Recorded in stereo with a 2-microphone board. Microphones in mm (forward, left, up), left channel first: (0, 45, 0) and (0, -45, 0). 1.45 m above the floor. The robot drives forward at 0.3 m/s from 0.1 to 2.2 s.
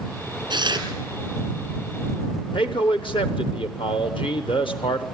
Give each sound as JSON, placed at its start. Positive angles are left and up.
{"t": 0.5, "sound": "tearing paper", "side_deg": -55, "distance_m": 3.0}
{"t": 2.5, "sound": "a man speaking", "side_deg": 70, "distance_m": 1.0}